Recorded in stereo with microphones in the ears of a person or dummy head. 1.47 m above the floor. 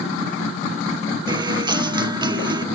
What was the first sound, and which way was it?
A guitar, 20° right (ahead or behind).